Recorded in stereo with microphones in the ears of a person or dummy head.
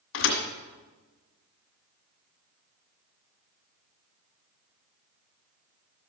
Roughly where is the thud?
Left.